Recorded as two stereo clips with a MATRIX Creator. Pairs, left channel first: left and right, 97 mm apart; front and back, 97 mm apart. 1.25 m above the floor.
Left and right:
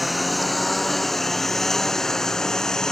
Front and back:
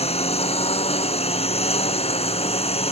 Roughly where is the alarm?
I don't hear an alarm.